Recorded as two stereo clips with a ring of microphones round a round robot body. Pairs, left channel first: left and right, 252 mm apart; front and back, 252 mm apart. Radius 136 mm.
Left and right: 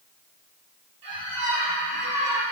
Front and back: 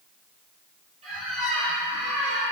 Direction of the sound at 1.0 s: 110° right.